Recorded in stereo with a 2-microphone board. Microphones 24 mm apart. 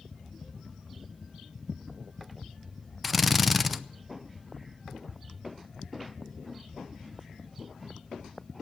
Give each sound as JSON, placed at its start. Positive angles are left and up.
{"t": 3.0, "sound": "a drill", "side_deg": -5, "distance_m": 0.6}